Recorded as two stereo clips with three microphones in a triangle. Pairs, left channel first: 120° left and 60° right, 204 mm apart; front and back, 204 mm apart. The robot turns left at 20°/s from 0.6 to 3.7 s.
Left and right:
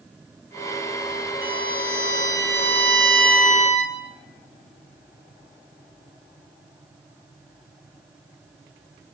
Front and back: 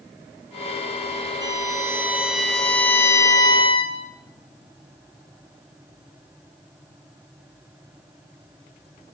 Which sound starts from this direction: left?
A violin, at 1.4 s.